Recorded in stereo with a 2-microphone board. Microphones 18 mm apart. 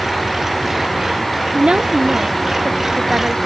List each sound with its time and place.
0.0 s an engine running: 20° right (ahead or behind)
1.5 s a woman speaking: 80° right